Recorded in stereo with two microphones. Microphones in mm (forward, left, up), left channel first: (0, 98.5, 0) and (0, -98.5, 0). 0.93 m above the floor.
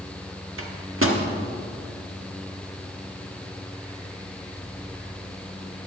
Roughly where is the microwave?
Right.